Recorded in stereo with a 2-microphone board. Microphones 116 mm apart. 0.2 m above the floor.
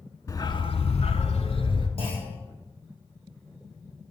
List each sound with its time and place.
0.3 s a dog barking: 30° left (ahead or behind), 0.6 m; by 1.9 s 50° left (ahead or behind), 1.1 m
2.0 s a clunk: 55° left (ahead or behind), 3.5 m